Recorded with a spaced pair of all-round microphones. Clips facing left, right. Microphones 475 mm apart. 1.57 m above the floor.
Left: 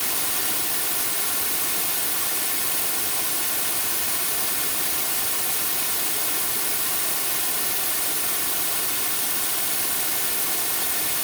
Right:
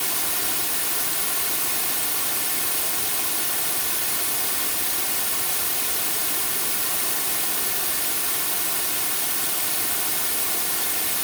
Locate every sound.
Only background noise.